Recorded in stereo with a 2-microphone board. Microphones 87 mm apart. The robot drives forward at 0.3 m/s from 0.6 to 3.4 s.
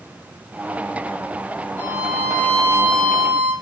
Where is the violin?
30° left (ahead or behind), 1.6 m; by 3.5 s 20° left (ahead or behind), 2.0 m.